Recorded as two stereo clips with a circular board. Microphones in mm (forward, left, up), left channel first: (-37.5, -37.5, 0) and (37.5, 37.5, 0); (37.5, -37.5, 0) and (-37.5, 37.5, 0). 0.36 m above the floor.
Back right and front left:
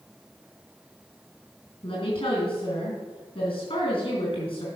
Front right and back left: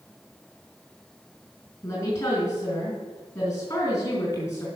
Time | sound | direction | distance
1.8 | a woman speaking | 95° right | 4 m